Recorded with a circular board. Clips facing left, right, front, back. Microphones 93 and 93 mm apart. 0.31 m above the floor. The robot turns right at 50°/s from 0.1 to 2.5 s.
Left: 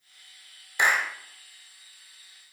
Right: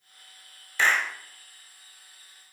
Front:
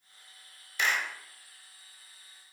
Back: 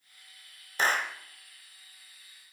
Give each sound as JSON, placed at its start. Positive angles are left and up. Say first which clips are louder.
{"t": 0.8, "sound": "a clap", "louder": "even, back 3 dB", "azimuth_deg": 155, "distance_m": 1.3}